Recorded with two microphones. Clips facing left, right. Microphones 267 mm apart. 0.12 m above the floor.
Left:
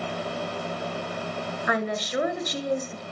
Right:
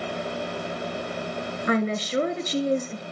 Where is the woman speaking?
30° right (ahead or behind), 1.6 m.